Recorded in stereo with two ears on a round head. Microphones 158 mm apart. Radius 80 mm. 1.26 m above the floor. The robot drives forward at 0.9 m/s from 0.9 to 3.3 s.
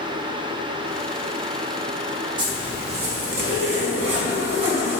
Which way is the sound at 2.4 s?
25° right (ahead or behind).